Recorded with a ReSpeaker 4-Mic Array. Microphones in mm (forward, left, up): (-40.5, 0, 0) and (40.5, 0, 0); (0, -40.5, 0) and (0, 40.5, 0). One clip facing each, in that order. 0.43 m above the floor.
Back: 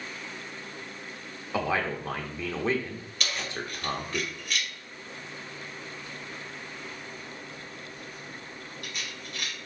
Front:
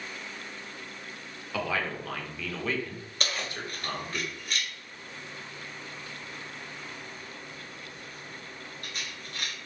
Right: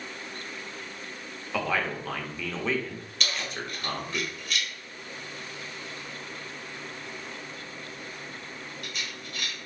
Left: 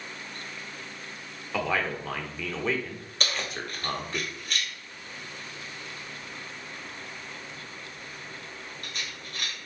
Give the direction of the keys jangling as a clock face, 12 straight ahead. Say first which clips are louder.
Even, left 1 dB; 10 o'clock.